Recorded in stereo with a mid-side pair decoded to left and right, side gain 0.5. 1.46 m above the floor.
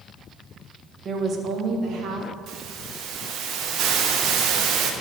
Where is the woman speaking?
40° right, 1.6 m; by 2.3 s 60° right, 2.5 m.